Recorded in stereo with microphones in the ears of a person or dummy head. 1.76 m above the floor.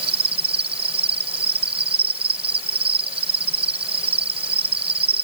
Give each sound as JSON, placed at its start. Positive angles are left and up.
{"t": 0.0, "sound": "an insect", "side_deg": -30}